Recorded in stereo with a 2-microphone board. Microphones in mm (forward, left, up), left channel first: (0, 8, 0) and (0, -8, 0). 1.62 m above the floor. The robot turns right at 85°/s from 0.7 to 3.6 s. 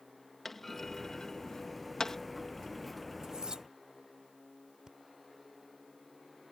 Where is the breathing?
60° right (ahead or behind).